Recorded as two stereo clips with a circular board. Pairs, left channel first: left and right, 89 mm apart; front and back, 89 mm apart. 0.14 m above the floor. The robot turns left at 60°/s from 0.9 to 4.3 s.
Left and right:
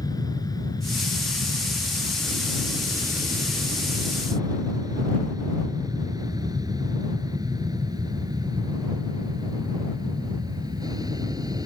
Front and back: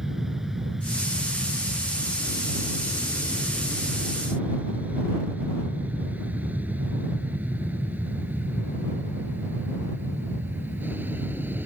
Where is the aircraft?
95° left; by 11.7 s 120° right.